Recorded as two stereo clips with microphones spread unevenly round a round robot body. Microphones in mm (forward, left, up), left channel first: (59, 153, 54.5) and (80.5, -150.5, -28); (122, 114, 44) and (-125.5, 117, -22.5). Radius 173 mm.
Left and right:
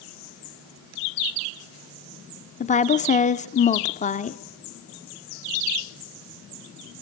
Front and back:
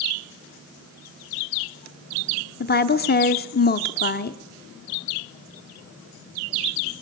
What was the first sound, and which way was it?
A woman speaking, 20° left.